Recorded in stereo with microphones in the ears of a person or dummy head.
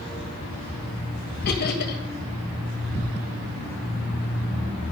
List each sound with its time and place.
1.4 s laughter: 50° left (ahead or behind), 2.5 m